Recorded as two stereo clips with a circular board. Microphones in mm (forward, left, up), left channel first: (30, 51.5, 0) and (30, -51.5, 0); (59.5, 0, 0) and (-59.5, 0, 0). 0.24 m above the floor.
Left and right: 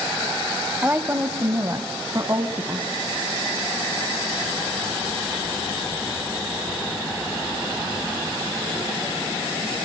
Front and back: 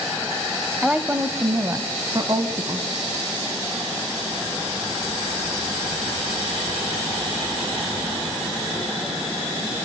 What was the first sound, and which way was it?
A woman speaking, 105° right.